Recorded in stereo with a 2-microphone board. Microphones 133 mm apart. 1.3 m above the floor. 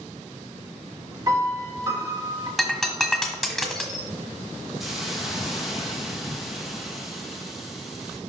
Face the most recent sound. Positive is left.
turn(degrees=0)  # may be behind; listen again after turning